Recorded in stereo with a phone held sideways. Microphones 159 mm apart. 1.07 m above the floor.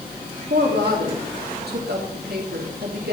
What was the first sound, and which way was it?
A woman speaking, 80° right.